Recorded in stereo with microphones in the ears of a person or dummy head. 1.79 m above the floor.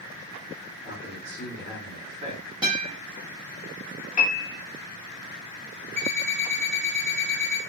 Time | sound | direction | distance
0.8 | a man speaking | 25° right (ahead or behind) | 1.6 m
2.6 | a guitar | 25° right (ahead or behind) | 0.9 m
4.2 | a piano | 30° left (ahead or behind) | 0.8 m
6.0 | an alarm clock | 40° right (ahead or behind) | 1.7 m